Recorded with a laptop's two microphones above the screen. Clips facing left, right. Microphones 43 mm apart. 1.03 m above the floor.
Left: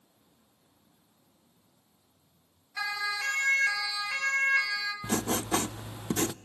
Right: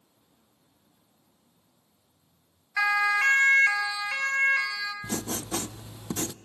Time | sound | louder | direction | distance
2.8 | a siren | right 9 dB | 60° right (ahead or behind) | 2 m
5.0 | writing | left 3 dB | 25° left (ahead or behind) | 0.6 m